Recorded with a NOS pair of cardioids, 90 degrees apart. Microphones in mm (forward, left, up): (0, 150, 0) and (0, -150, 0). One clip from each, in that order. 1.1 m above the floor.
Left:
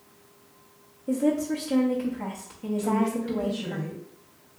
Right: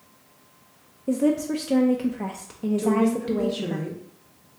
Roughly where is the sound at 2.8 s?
Right.